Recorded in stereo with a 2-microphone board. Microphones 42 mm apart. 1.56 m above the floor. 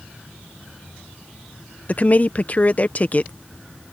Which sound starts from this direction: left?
A woman speaking, at 1.9 s.